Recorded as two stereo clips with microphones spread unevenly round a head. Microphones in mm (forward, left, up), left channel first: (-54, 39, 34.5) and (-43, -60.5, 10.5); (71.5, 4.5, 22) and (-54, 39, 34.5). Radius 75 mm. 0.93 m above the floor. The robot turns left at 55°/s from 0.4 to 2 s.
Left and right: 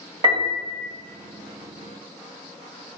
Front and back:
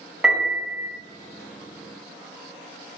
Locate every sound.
0.2 s a piano: 110° right, 1.2 m; by 0.9 s 140° right, 1.2 m